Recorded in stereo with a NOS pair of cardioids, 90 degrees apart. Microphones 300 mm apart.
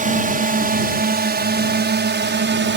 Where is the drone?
25° right; by 2.8 s 40° right.